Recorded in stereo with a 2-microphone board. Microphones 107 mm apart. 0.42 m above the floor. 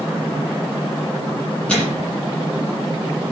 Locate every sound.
1.7 s a microwave: 10° left (ahead or behind), 8 m